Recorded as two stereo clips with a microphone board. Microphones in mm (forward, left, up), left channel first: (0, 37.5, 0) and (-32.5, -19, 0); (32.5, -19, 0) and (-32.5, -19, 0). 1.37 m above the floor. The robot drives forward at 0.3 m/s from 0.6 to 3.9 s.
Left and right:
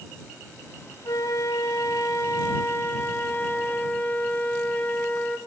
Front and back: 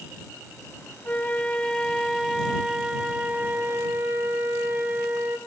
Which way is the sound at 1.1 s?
65° left.